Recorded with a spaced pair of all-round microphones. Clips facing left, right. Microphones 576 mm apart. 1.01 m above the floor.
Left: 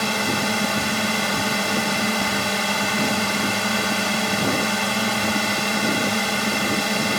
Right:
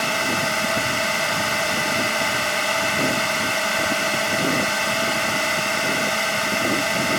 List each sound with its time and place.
0.0 s a drone: 60° left (ahead or behind)